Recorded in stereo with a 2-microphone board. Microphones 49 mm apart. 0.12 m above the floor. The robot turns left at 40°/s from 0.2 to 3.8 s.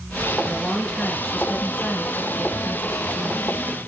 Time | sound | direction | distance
0.5 | a woman speaking | 160° left | 1.6 m